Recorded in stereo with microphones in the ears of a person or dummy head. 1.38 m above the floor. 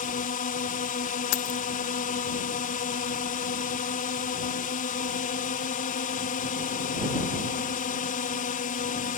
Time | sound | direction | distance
0.0 | a drone | 40° left (ahead or behind) | ?
1.3 | keys jangling | 60° left (ahead or behind) | ?